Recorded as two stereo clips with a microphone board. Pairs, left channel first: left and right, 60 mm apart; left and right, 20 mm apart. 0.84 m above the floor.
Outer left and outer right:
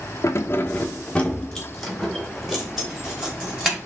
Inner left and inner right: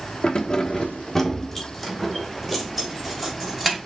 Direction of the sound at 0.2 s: 60° left (ahead or behind).